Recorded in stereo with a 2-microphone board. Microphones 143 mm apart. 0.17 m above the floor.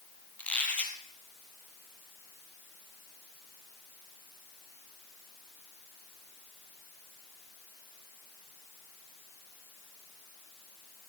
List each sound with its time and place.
0.4 s a squeak: 10° left (ahead or behind), 1.5 m